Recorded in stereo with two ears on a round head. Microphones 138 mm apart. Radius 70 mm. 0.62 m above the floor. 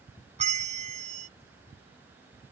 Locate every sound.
0.4 s a bell: 40° right (ahead or behind)